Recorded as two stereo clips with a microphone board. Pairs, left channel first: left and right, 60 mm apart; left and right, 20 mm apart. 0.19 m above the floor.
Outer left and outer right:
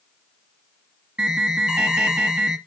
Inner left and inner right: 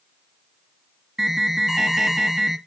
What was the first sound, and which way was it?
An alarm, 20° right (ahead or behind).